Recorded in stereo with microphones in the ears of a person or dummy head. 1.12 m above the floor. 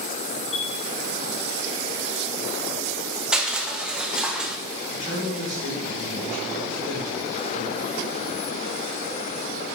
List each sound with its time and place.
0.5 s a chime: 45° left (ahead or behind), 2 m
3.3 s crushing: 5° right (ahead or behind), 1.0 m
4.9 s a man speaking: 45° left (ahead or behind), 4.5 m